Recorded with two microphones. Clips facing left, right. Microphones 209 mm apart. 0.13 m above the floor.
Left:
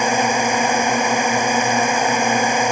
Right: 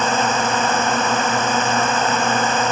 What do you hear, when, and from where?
0.0 s a drone: 15° left (ahead or behind)